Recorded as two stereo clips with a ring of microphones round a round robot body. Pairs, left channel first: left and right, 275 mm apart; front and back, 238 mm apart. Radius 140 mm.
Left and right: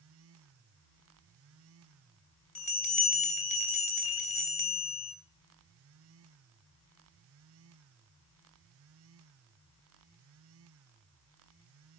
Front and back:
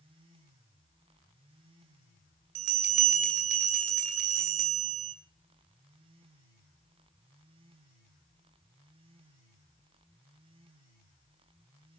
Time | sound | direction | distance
2.5 | a bell | 155° left | 3 m